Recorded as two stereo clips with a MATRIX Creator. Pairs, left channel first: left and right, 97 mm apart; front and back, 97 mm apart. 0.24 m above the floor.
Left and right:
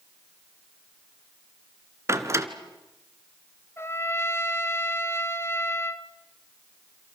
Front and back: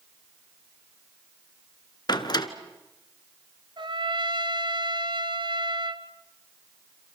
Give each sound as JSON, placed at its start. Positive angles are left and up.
{"t": 2.1, "sound": "a door slam", "azimuth_deg": -35, "distance_m": 1.9}
{"t": 3.8, "sound": "a trumpet", "azimuth_deg": 150, "distance_m": 1.3}